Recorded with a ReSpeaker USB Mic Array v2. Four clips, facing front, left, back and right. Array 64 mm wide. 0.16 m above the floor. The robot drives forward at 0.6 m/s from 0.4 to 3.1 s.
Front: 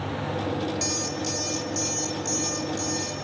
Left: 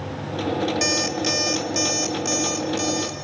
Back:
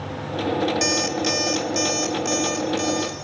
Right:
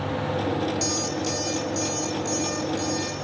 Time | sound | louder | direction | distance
0.8 | an alarm clock | left 3 dB, back 7 dB | 130° left | 1.6 m